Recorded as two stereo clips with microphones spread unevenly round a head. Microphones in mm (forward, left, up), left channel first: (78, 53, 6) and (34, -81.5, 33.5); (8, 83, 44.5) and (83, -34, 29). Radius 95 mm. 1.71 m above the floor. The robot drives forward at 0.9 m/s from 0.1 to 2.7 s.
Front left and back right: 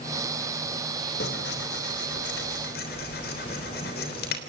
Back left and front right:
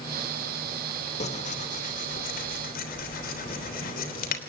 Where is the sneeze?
No sneeze in this recording.